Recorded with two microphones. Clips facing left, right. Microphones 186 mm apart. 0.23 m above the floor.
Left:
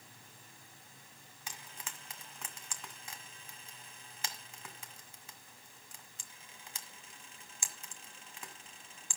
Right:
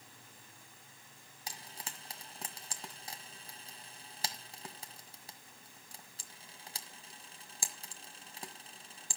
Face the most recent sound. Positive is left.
turn(degrees=-35)  # may be behind; listen again after turning